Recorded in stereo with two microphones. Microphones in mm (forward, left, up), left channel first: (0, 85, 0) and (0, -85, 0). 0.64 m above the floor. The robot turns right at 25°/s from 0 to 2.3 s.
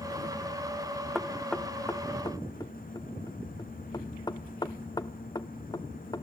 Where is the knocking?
Centre (ahead or behind), 0.8 m; by 6.2 s 25° left (ahead or behind), 0.8 m.